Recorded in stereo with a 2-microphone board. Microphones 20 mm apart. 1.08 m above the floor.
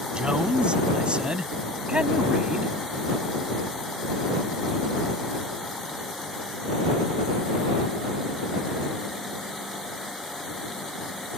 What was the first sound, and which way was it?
A man speaking, 45° right (ahead or behind).